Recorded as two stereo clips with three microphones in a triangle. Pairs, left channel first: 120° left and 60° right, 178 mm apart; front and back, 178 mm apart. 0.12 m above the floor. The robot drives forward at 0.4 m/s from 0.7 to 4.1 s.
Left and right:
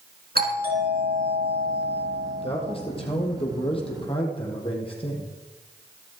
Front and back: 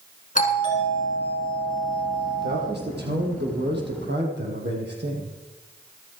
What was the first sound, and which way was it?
A doorbell, 40° right.